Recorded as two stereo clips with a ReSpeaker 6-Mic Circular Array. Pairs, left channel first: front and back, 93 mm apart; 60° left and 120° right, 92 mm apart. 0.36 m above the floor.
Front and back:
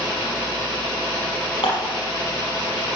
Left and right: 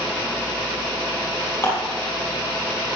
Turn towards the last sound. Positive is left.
turn(degrees=5)